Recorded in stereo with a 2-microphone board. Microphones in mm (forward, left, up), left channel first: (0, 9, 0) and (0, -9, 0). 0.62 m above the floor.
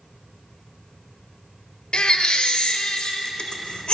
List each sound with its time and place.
1.9 s a baby crying: 75° left (ahead or behind), 0.6 m